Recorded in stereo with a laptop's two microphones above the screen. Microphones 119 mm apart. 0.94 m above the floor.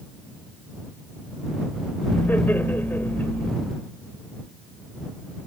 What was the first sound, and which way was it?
Laughter, 15° left (ahead or behind).